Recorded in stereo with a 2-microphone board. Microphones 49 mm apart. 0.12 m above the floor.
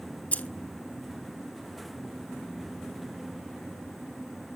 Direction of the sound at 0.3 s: 30° left (ahead or behind).